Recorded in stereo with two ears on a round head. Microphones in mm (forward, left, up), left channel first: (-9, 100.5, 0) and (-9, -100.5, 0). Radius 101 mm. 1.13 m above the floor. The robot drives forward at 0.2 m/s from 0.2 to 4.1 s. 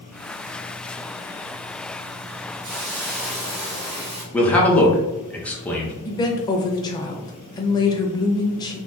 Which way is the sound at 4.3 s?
5° left (ahead or behind).